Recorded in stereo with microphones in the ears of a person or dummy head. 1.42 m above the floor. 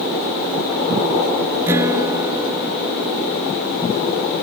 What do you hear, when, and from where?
1.7 s a guitar: 15° right (ahead or behind)